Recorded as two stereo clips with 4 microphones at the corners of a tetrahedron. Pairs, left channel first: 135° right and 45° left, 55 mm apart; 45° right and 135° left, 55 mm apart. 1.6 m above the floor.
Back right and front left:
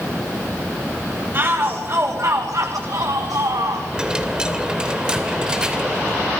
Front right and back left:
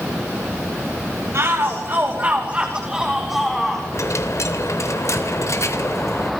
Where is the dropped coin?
25° right, 2.5 m.